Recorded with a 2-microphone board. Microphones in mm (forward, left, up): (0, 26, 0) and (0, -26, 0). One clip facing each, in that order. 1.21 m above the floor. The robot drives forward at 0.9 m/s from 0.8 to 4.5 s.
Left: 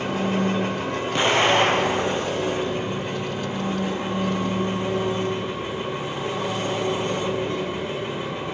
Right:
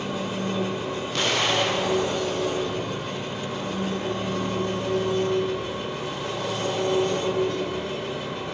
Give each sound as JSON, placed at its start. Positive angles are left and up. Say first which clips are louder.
{"t": 0.0, "sound": "an engine running", "louder": "left 5 dB", "side_deg": 50, "distance_m": 2.0}
{"t": 1.1, "sound": "an explosion", "louder": "left 5 dB", "side_deg": 20, "distance_m": 0.8}